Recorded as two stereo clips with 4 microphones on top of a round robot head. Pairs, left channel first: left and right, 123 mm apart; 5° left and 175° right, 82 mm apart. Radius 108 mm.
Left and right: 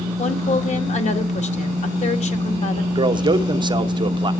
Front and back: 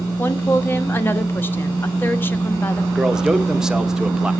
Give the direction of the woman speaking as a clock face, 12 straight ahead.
10 o'clock.